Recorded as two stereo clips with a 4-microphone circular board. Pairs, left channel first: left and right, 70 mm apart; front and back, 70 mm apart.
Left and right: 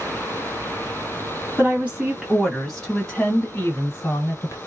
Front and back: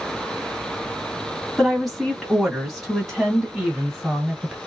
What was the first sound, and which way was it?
A woman speaking, 85° right.